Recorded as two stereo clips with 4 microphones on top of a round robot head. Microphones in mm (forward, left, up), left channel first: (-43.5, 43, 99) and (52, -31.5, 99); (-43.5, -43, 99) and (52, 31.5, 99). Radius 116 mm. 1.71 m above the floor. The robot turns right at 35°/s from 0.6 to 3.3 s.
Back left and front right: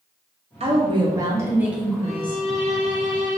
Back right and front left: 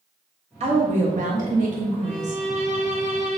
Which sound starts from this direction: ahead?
A woman speaking, at 0.6 s.